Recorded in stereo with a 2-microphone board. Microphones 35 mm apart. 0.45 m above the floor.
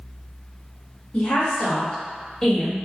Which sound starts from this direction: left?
A woman speaking, at 1.1 s.